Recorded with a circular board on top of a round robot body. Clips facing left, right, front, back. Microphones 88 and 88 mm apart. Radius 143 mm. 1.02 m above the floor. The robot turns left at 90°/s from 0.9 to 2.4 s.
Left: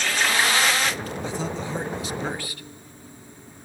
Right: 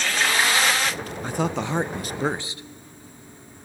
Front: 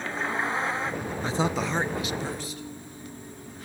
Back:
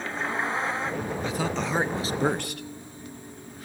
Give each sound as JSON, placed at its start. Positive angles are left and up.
{"t": 1.2, "sound": "a man speaking", "azimuth_deg": -50, "distance_m": 0.8}